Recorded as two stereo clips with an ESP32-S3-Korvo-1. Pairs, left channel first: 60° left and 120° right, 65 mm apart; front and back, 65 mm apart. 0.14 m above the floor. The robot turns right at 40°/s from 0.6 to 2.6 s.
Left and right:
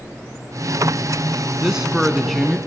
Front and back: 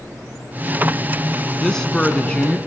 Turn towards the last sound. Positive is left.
turn(degrees=-25)